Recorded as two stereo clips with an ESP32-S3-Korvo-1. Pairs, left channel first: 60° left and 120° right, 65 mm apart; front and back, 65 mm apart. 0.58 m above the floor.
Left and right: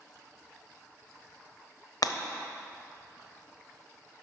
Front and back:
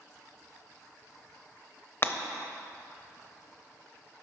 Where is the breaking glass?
50° left, 0.7 m.